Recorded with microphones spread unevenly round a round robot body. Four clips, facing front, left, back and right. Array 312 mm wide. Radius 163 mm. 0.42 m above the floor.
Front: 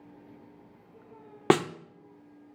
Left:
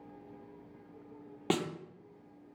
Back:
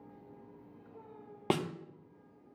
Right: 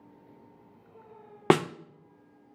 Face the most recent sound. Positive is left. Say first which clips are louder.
# right 10 dB, front 9 dB
turn(degrees=-45)